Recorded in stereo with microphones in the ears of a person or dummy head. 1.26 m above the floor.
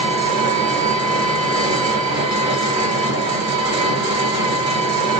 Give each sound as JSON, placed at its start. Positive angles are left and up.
{"t": 0.0, "sound": "an engine running", "side_deg": -25, "distance_m": 1.4}